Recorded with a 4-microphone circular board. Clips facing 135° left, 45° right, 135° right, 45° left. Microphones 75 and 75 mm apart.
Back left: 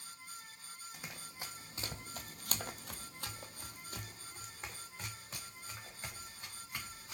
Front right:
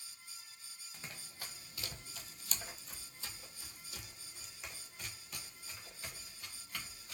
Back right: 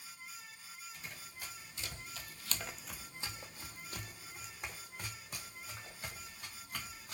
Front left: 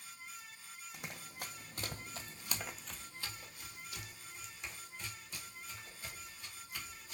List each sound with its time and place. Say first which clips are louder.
0.9 s running footsteps: back left 1 dB, front left 6 dB; 60° left, 1.0 m; by 7.1 s 160° right, 2.5 m